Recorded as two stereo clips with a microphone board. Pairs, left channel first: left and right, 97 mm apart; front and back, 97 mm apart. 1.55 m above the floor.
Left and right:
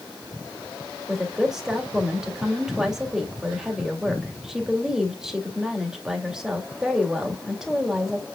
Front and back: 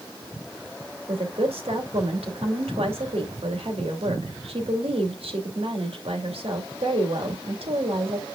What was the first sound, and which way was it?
A woman speaking, 175° right.